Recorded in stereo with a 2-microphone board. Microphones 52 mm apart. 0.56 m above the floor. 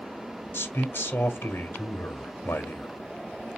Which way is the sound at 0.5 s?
45° left (ahead or behind).